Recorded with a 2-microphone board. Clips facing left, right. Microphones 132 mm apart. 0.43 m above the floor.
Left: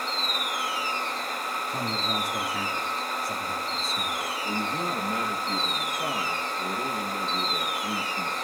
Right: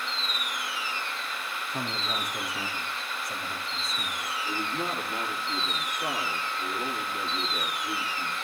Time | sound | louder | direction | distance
1.7 | a man speaking | left 2 dB | 80° left | 9.5 m
4.4 | a man speaking | left 1 dB | 50° left (ahead or behind) | 8.5 m